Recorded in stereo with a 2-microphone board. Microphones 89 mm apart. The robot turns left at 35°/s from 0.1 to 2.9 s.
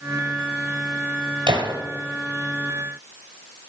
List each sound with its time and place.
1.5 s a gunshot: 70° right (ahead or behind), 1.9 m; by 1.8 s 65° right (ahead or behind), 1.9 m